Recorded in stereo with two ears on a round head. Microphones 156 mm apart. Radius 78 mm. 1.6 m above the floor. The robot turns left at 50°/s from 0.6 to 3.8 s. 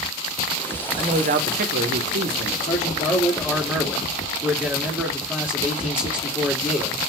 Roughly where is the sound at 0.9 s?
Ahead right.